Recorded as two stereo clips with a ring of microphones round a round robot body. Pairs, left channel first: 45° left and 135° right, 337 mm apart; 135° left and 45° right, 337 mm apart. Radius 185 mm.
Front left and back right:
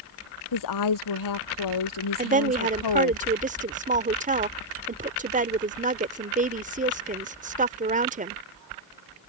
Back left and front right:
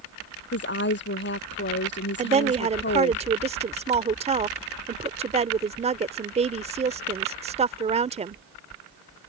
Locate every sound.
0.5 s a woman speaking: 75° left
2.2 s a woman speaking: 95° right